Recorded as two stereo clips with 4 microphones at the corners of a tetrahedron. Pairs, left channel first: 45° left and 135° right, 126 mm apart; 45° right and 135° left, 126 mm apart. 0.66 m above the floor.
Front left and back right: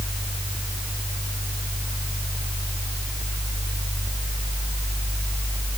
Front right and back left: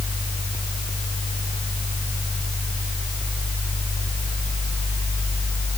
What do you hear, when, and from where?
Only background noise.